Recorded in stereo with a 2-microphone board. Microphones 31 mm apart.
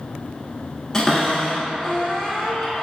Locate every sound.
0.9 s a cupboard door: 20° left (ahead or behind), 1.2 m